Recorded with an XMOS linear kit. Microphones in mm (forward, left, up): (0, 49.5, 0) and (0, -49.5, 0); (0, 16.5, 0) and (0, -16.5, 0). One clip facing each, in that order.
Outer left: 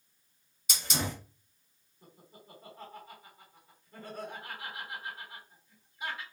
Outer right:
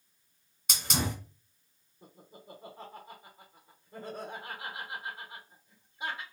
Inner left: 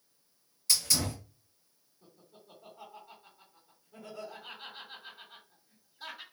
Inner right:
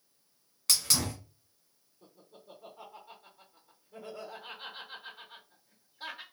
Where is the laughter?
25° right (ahead or behind), 1.0 m.